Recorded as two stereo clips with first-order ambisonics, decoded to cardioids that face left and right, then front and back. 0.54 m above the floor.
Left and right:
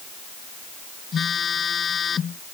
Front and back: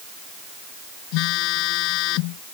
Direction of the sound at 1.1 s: 25° left.